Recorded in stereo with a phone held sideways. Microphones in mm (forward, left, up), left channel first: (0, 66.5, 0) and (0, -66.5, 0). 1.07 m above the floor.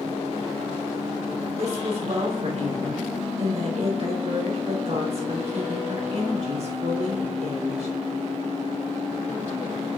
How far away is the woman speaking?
About 3.5 m.